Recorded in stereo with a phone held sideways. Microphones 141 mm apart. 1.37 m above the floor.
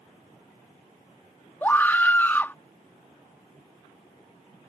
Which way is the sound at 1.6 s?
15° left (ahead or behind).